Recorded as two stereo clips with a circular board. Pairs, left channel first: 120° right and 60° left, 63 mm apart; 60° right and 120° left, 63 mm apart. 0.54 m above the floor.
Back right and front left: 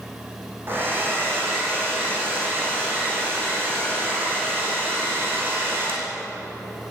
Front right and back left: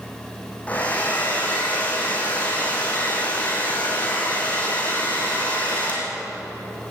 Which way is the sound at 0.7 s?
5° left.